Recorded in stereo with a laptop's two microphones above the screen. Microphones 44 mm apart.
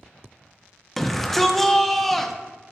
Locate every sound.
1.0 s a shout: 5° left (ahead or behind), 0.7 m